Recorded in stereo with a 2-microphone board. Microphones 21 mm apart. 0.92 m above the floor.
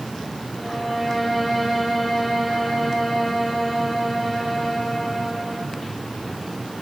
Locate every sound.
0.6 s a violin: centre (ahead or behind), 5.5 m